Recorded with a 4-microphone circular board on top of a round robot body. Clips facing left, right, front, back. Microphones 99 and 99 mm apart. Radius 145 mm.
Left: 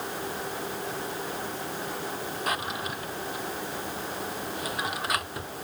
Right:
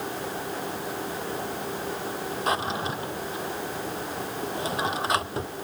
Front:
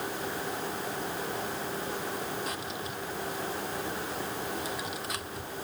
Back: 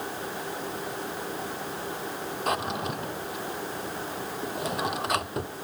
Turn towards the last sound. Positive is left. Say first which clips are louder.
# right 5 dB, back 8 dB
turn(degrees=-150)